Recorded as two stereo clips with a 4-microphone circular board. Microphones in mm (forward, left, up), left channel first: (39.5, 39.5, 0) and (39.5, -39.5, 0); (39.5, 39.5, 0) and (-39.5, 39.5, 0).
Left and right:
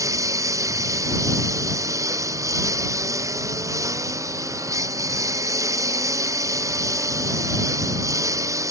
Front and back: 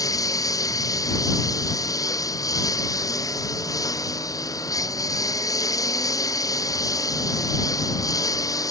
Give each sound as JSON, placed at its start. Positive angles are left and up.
{"t": 0.0, "sound": "a lawn mower", "azimuth_deg": -45}